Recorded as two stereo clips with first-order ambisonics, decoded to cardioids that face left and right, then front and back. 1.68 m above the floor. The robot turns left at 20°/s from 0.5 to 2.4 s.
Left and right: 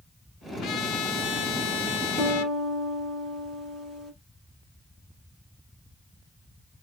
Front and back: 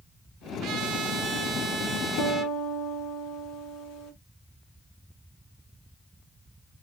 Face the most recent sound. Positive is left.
turn(degrees=-10)